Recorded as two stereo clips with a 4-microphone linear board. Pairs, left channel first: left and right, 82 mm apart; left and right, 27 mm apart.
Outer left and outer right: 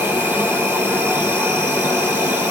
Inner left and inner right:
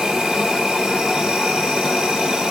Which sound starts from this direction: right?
An insect, at 0.0 s.